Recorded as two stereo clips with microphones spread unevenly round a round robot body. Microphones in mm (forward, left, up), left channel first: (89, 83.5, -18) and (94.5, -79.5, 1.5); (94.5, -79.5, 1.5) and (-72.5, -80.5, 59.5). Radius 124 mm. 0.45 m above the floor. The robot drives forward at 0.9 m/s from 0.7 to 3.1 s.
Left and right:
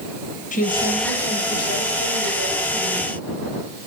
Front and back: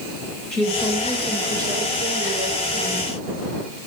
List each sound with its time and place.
0.5 s a woman speaking: 75° left, 1.9 m; by 3.2 s 135° left, 2.5 m